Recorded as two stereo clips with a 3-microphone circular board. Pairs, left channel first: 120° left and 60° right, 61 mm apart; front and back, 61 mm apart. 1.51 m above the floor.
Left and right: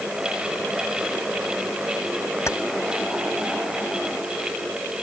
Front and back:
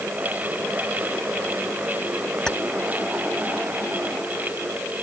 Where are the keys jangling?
80° left.